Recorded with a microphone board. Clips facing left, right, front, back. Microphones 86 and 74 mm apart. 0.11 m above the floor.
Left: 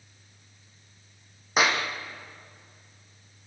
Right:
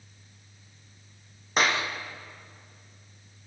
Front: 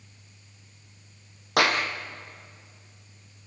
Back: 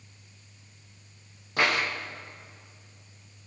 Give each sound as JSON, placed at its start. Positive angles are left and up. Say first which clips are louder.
{"t": 1.6, "sound": "a clap", "louder": "left 1 dB, front 3 dB", "azimuth_deg": 5, "distance_m": 4.0}